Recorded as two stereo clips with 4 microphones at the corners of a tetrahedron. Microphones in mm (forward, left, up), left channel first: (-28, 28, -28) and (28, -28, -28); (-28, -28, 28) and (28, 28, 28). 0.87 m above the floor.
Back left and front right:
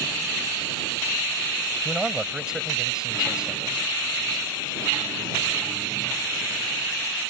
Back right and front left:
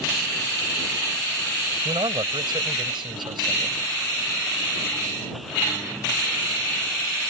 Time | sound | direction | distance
1.9 | a man speaking | 35° left | ?